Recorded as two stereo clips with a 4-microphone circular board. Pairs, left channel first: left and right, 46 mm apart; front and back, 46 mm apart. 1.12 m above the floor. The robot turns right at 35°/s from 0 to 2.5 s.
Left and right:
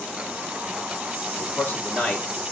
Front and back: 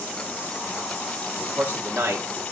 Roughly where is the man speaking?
Behind left.